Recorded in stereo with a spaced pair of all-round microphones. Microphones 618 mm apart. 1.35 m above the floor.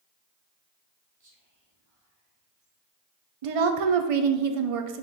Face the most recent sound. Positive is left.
turn(degrees=-60)  # may be behind; listen again after turning